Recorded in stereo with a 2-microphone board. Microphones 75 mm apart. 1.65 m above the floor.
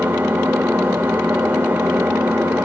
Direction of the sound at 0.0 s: 20° right (ahead or behind).